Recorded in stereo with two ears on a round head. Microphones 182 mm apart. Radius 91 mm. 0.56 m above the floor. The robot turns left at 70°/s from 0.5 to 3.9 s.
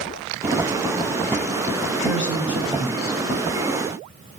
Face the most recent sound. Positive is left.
turn(degrees=55)